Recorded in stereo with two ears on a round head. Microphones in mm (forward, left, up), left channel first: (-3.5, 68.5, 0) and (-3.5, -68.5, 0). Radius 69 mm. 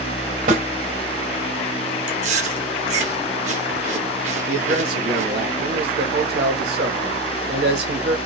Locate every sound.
0.5 s a snare drum: 60° right (ahead or behind), 2.5 m
2.1 s chewing: 45° right (ahead or behind), 1.1 m
4.5 s a man speaking: 75° right (ahead or behind), 1.4 m